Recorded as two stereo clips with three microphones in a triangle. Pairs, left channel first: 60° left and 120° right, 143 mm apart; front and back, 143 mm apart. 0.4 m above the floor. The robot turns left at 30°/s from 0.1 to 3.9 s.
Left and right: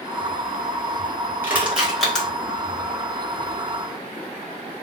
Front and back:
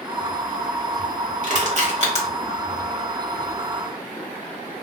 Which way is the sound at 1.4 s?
170° left.